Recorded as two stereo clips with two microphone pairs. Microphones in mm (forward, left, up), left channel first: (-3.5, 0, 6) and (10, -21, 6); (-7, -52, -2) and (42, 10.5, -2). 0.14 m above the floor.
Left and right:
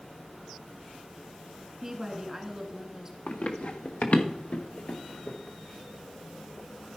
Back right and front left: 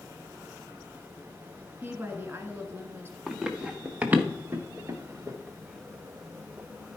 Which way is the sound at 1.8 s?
5° left.